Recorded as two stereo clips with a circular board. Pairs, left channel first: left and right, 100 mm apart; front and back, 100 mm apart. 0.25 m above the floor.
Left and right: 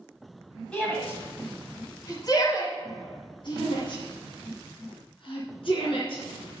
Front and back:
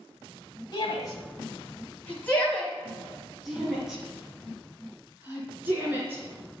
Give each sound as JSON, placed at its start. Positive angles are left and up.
{"t": 0.7, "sound": "a shout", "azimuth_deg": 15, "distance_m": 1.6}